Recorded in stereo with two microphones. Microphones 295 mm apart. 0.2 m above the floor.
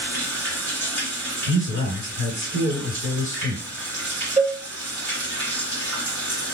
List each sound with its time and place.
0.0 s running water: 55° right (ahead or behind), 1.0 m
1.5 s a man speaking: 40° right (ahead or behind), 1.8 m
4.4 s a cowbell: 25° right (ahead or behind), 1.2 m